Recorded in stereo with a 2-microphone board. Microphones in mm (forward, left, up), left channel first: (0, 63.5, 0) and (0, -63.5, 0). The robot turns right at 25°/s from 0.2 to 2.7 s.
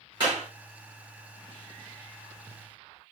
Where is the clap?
35° right (ahead or behind), 4 m; by 0.5 s 40° right (ahead or behind), 4 m.